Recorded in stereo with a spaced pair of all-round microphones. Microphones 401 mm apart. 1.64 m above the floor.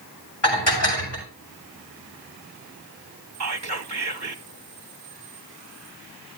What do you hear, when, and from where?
0.4 s dishes clattering: 85° left, 6.5 m
3.4 s whispering: 45° right (ahead or behind), 0.7 m